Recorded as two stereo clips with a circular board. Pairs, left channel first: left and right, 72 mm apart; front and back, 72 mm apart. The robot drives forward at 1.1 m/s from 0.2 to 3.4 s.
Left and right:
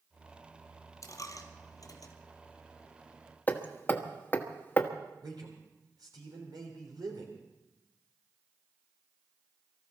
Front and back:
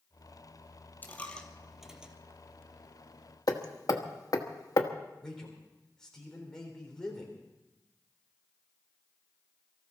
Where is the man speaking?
80° right, 3.5 m.